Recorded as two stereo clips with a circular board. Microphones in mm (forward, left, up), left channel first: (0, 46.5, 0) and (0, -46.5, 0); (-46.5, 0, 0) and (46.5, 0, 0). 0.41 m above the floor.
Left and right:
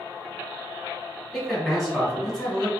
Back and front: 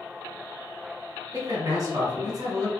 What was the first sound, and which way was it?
A man speaking, straight ahead.